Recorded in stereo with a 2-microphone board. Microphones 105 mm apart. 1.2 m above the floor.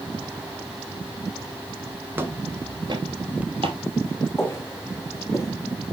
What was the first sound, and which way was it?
Footsteps, 20° right (ahead or behind).